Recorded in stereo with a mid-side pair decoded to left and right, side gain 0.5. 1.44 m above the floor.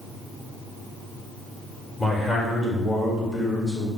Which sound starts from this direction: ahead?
A man speaking, at 2.0 s.